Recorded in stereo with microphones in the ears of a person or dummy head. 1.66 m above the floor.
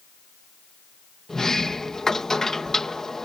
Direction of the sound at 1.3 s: 5° left (ahead or behind).